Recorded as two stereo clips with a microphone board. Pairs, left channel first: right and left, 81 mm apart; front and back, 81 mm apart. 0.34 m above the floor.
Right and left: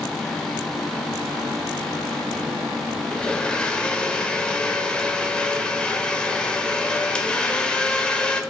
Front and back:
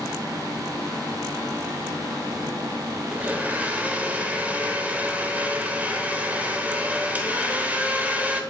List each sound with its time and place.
3.1 s a blender: 150° right, 1.0 m